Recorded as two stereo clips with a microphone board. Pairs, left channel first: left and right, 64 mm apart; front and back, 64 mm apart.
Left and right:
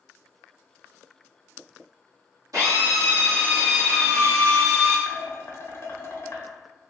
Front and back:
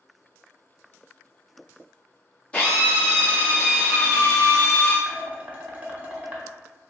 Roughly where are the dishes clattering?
Behind left.